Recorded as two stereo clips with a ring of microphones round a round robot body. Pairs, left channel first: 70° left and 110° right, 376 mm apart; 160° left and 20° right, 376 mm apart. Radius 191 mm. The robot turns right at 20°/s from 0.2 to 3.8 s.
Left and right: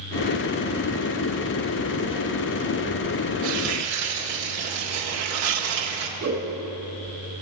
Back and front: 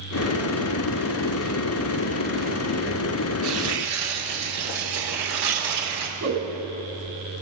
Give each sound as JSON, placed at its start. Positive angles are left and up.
{"t": 3.4, "sound": "tearing paper", "azimuth_deg": -75, "distance_m": 1.6}
{"t": 6.2, "sound": "a whoosh", "azimuth_deg": -65, "distance_m": 3.5}